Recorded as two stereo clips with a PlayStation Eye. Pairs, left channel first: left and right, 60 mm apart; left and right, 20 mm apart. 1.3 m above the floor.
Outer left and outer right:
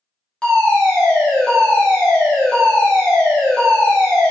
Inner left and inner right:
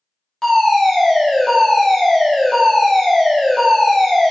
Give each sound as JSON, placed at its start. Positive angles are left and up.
{"t": 0.4, "sound": "a fire alarm", "side_deg": 15, "distance_m": 1.1}